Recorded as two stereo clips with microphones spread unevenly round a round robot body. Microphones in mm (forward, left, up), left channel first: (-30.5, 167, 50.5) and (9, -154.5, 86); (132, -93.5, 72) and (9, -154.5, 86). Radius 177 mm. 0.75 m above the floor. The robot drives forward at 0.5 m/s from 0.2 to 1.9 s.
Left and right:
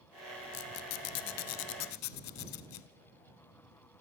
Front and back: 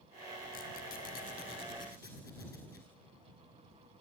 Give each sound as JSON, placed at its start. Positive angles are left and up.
{"t": 0.5, "sound": "a squeak", "azimuth_deg": 55, "distance_m": 1.0}